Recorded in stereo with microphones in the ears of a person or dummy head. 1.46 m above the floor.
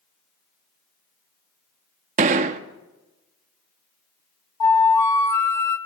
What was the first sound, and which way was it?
A gunshot, 40° right (ahead or behind).